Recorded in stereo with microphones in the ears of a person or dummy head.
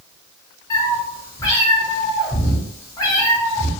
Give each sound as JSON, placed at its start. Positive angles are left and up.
{"t": 0.7, "sound": "a cat meowing", "side_deg": 25, "distance_m": 1.3}